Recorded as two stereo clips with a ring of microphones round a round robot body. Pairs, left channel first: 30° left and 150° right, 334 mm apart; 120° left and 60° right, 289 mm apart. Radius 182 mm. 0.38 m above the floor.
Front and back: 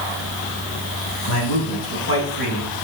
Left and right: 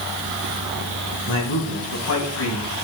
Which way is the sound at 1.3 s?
75° left.